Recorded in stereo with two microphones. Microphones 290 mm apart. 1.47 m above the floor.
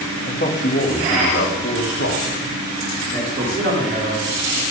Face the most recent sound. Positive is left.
turn(degrees=-40)  # may be behind; listen again after turning